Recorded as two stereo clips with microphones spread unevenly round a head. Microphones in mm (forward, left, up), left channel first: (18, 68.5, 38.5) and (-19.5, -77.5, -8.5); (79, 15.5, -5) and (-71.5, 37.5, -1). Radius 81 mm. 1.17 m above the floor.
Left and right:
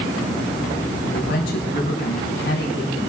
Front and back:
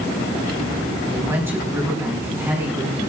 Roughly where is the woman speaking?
Left.